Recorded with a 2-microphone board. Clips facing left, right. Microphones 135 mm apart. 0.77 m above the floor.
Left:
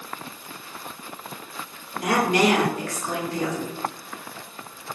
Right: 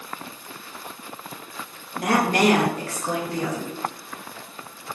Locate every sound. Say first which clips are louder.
1.9 s a woman speaking: even; 50° right (ahead or behind), 0.8 m; by 3.7 s 10° right (ahead or behind), 0.8 m